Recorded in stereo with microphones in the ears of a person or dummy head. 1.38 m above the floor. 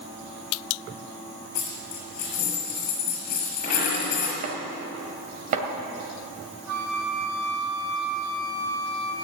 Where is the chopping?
45° right (ahead or behind), 2 m.